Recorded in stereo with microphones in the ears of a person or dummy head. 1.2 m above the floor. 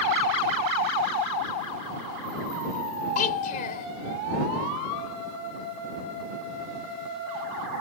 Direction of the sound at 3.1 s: 45° left (ahead or behind).